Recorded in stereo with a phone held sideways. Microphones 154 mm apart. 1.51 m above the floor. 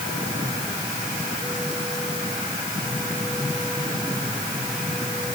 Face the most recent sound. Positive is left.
No sound to turn to.